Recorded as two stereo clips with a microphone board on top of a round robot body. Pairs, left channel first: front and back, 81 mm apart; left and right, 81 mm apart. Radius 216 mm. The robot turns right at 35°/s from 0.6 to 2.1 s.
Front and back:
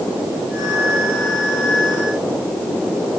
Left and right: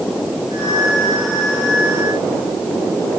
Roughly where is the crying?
I don't hear crying.